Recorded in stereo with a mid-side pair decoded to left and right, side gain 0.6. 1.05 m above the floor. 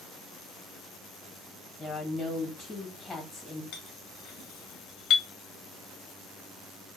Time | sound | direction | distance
1.8 | a woman speaking | 20° left | 1.4 m
3.7 | a clink | 70° left | 1.1 m